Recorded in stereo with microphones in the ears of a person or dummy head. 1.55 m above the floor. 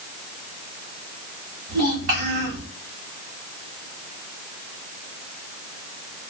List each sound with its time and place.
1.7 s a child speaking: 50° right (ahead or behind), 1.3 m